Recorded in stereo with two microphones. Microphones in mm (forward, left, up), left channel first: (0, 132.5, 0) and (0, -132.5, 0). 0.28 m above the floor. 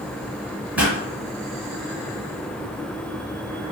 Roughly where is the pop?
Centre.